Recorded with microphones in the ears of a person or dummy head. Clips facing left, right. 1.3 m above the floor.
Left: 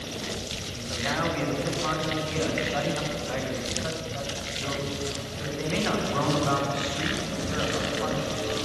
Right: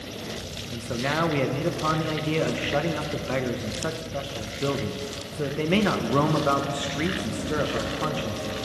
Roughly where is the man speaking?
Right.